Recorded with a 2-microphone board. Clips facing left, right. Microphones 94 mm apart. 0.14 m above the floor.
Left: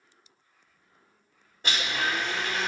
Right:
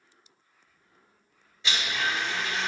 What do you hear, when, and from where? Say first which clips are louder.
1.6 s a blender: left 1 dB; 50° left (ahead or behind), 2.5 m